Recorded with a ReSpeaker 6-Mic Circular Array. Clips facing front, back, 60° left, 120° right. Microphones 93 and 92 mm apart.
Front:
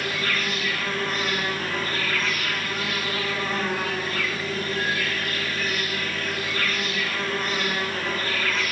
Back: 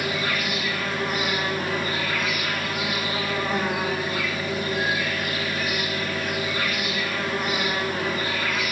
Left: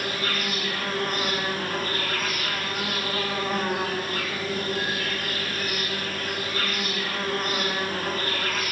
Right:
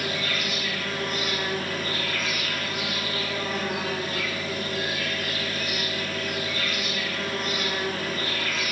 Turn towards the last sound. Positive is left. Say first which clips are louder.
# back 1 dB, left 1 dB
turn(degrees=105)